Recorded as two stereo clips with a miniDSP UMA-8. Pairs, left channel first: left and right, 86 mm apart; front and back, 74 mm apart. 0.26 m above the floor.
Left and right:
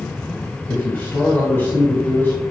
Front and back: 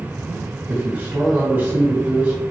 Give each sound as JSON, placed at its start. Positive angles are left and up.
{"t": 0.7, "sound": "a man speaking", "azimuth_deg": 130, "distance_m": 1.2}